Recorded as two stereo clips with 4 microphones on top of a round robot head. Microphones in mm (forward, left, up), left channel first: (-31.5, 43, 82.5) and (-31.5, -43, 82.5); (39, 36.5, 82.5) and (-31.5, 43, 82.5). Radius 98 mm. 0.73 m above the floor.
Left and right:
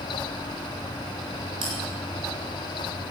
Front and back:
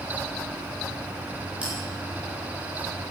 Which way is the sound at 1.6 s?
110° right.